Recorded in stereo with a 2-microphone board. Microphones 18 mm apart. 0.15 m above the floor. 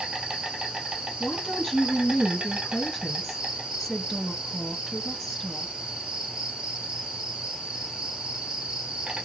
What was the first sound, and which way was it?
An insect, 70° right (ahead or behind).